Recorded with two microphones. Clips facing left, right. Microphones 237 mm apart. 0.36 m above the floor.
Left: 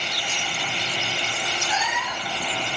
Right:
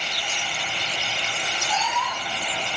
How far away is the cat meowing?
About 1.7 m.